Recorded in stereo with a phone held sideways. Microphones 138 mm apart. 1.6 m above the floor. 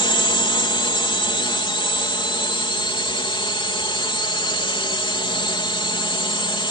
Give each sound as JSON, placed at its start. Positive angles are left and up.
{"t": 0.0, "sound": "a drone", "side_deg": 35}